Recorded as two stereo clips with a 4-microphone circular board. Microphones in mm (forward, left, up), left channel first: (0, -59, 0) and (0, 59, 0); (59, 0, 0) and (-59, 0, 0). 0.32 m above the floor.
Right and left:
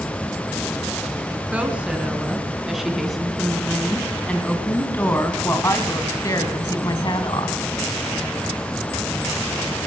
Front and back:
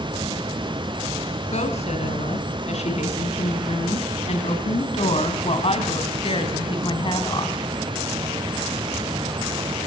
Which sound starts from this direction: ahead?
A woman speaking, at 1.5 s.